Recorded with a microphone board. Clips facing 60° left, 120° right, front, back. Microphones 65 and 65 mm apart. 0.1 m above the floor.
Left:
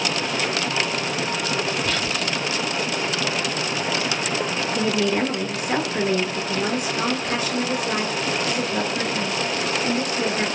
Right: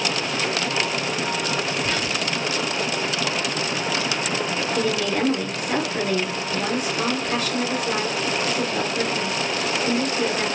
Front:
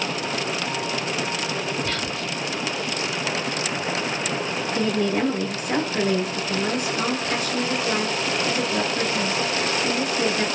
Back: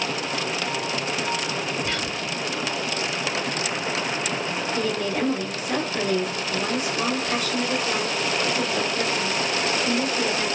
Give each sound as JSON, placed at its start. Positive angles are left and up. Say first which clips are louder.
{"t": 1.9, "sound": "whispering", "louder": "even, even", "azimuth_deg": -120, "distance_m": 1.9}
{"t": 4.8, "sound": "a woman speaking", "louder": "left 2 dB, front 4 dB", "azimuth_deg": 25, "distance_m": 1.5}